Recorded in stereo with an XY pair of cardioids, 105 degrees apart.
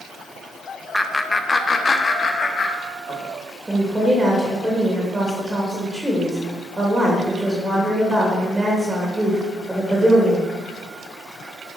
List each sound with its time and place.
0.9 s laughter: 5° left, 1.0 m; by 3.3 s 50° left, 2 m
3.7 s a woman speaking: 15° right, 3 m